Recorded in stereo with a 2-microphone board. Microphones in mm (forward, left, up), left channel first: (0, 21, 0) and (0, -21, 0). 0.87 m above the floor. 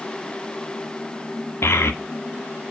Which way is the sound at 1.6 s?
70° left (ahead or behind).